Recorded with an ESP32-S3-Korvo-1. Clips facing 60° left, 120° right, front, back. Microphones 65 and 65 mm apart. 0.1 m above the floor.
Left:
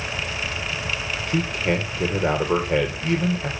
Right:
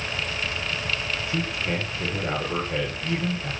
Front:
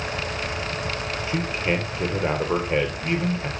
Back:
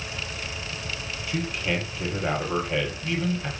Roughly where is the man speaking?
Ahead left.